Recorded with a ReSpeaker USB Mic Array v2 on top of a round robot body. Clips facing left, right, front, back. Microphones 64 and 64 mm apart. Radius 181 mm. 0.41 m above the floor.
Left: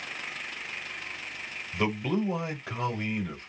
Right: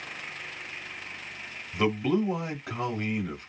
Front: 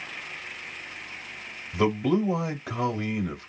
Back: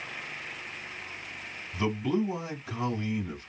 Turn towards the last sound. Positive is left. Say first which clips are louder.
# right 3 dB, front 5 dB
turn(degrees=-5)